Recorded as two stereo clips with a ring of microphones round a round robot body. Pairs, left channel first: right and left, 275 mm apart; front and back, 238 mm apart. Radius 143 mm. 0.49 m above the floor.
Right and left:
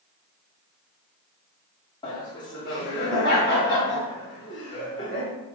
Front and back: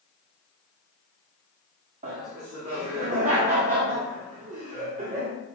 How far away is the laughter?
About 0.9 m.